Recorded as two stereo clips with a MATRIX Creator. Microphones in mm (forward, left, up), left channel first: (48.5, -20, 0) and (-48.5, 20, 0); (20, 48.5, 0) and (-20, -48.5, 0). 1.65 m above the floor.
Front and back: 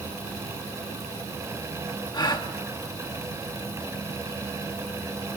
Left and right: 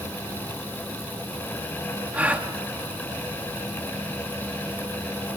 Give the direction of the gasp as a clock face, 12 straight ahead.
1 o'clock.